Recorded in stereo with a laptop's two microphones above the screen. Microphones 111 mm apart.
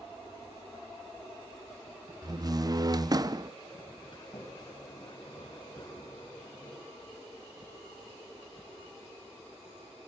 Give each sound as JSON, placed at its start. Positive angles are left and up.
{"t": 2.2, "sound": "a door slam", "side_deg": -35, "distance_m": 0.9}
{"t": 4.1, "sound": "a sliding door", "side_deg": 45, "distance_m": 7.5}